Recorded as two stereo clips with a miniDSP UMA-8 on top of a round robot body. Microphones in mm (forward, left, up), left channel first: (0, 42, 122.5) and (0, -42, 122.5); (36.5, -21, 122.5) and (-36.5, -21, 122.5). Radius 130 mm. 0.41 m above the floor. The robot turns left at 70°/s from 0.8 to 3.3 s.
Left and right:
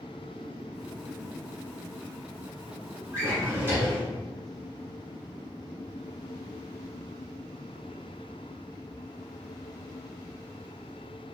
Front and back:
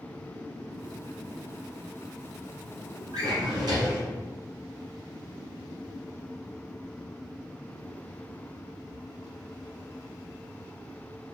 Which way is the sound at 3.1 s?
145° right.